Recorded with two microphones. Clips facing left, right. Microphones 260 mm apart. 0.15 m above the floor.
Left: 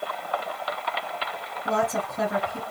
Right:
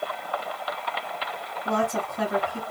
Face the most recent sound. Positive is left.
turn(degrees=25)  # may be behind; listen again after turning